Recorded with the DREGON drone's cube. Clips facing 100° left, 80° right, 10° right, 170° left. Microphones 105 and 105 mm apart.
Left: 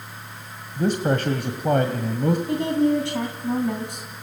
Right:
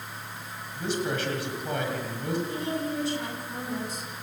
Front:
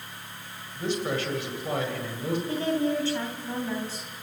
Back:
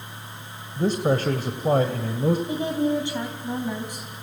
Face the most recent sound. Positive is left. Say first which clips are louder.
# left 10 dB, back 2 dB
turn(degrees=95)